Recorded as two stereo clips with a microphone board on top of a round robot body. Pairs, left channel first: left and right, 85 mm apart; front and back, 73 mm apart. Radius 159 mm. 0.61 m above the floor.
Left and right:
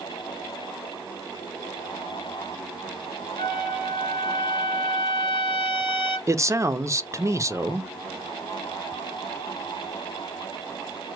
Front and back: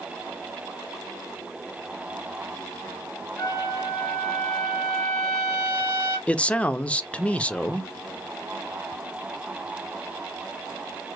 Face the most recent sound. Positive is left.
turn(degrees=-65)